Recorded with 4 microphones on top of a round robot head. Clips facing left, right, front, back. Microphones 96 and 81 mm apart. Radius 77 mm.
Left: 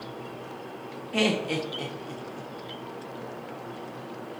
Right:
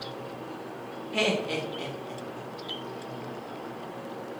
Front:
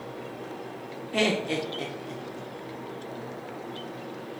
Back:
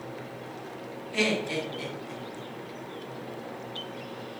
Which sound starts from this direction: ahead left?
Laughter, at 1.1 s.